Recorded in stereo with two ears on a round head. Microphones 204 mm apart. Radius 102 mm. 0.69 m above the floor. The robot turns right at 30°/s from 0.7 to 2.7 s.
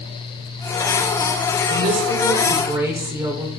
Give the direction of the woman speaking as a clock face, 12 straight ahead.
1 o'clock.